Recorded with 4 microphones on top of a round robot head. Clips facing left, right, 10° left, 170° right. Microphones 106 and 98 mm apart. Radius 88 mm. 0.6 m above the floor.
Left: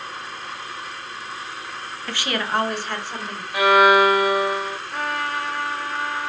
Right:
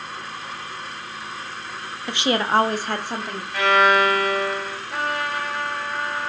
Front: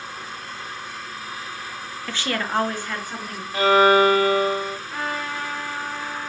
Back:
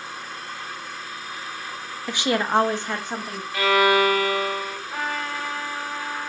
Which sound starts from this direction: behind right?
A woman speaking, at 2.1 s.